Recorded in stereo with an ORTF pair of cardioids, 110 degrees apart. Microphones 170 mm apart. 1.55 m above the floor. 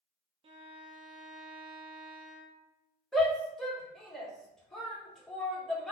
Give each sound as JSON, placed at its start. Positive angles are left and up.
{"t": 0.4, "sound": "a violin", "azimuth_deg": -30, "distance_m": 0.7}
{"t": 3.1, "sound": "a shout", "azimuth_deg": 0, "distance_m": 1.3}